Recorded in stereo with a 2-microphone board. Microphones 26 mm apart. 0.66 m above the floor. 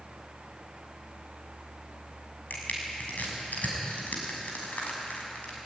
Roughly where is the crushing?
Left.